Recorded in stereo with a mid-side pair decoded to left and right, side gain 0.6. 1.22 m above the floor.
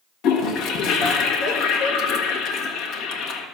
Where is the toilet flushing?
65° left, 1.4 m.